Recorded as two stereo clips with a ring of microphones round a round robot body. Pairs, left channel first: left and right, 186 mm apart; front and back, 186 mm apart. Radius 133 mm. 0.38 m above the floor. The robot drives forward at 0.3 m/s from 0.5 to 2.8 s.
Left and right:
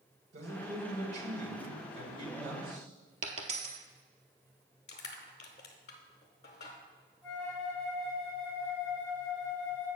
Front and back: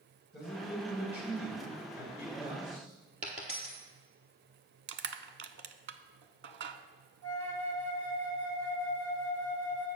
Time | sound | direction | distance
0.3 | a man speaking | 95° right | 2.5 m
3.2 | a dropped coin | 120° right | 0.9 m
4.9 | crushing | 155° left | 0.6 m
7.2 | a flute | 170° left | 1.9 m